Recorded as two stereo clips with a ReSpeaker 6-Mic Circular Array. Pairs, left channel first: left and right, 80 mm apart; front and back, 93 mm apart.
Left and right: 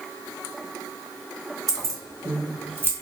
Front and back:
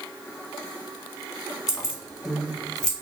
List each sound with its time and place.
1.7 s keys jangling: 100° right, 1.4 m; by 2.9 s 65° right, 1.1 m